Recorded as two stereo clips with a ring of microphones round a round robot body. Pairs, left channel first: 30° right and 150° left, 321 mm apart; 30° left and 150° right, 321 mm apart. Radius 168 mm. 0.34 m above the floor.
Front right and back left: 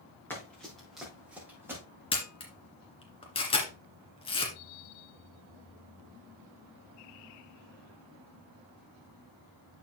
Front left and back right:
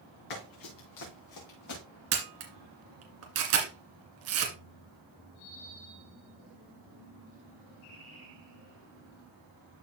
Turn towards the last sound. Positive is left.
turn(degrees=-105)